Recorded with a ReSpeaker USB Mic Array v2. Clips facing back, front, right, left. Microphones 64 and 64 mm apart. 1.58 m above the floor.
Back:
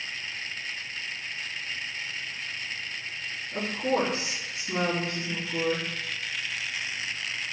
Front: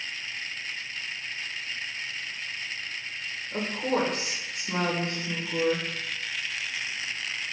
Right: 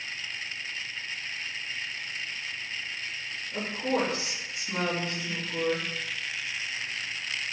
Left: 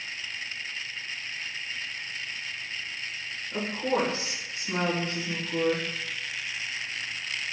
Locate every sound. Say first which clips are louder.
3.5 s a woman speaking: even, left 1 dB; 35° left, 1.7 m